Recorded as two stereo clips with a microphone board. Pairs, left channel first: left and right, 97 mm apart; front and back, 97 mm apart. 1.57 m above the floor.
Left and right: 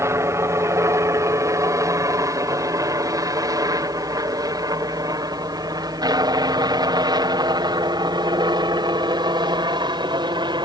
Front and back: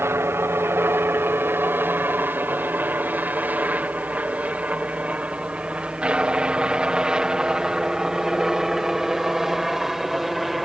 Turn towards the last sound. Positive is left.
turn(degrees=-95)